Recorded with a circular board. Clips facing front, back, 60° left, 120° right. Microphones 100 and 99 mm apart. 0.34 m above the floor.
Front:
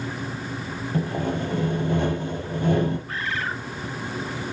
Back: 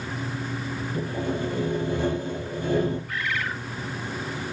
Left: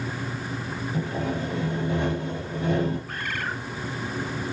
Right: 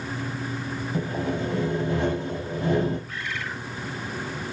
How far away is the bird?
About 0.9 m.